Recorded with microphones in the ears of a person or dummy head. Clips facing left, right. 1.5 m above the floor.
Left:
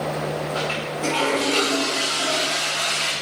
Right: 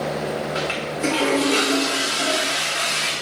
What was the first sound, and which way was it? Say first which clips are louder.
A toilet flushing: right 1 dB; 15° right (ahead or behind).